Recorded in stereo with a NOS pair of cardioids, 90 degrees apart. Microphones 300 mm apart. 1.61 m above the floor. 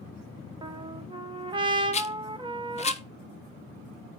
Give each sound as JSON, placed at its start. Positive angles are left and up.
{"t": 0.6, "sound": "a trumpet", "azimuth_deg": -15, "distance_m": 1.1}
{"t": 1.9, "sound": "a rattle", "azimuth_deg": 20, "distance_m": 0.9}